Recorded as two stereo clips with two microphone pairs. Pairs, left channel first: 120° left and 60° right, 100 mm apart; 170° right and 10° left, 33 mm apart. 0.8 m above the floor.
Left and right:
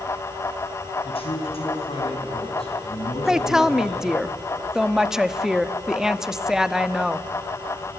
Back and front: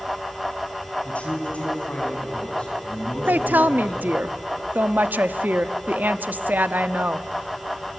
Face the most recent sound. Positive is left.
turn(degrees=20)